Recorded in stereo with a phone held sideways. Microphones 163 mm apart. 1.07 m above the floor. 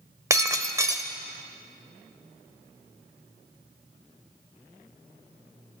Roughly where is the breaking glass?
Centre.